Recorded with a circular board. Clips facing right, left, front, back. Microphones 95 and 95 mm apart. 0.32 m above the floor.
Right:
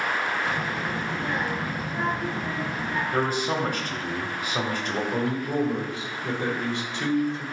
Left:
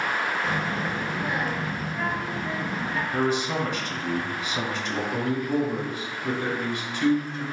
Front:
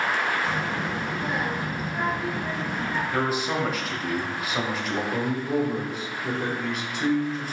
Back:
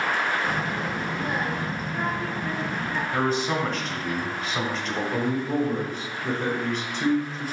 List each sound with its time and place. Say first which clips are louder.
0.4 s a child speaking: left 1 dB, even; 100° left, 0.9 m; by 3.0 s 70° right, 1.2 m
3.1 s a man speaking: left 1 dB, back 3 dB; 80° right, 1.1 m
5.1 s a man speaking: left 2 dB, back 1 dB; 80° right, 1.6 m